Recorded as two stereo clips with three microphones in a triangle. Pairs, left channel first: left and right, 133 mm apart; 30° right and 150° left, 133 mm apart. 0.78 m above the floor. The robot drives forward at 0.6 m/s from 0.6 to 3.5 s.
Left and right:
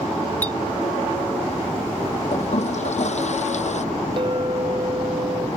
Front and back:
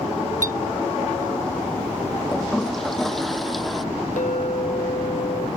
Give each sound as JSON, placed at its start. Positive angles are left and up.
{"t": 0.4, "sound": "a clink", "azimuth_deg": 165}
{"t": 2.3, "sound": "a toilet flushing", "azimuth_deg": 55}
{"t": 4.2, "sound": "a clink", "azimuth_deg": -40}